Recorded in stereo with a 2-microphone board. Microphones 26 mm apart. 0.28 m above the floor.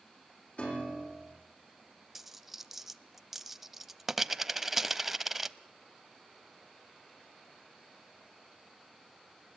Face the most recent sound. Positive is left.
turn(degrees=-15)  # may be behind; listen again after turning